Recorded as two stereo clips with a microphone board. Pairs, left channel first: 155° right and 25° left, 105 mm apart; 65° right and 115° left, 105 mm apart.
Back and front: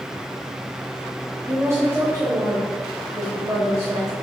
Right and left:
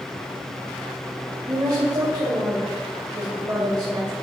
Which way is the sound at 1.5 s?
75° left.